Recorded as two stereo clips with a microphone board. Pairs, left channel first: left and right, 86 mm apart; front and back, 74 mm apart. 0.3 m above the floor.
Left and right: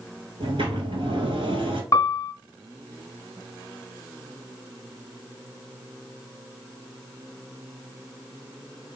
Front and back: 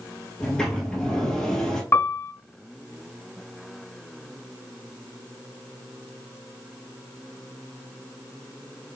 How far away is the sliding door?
About 1.7 m.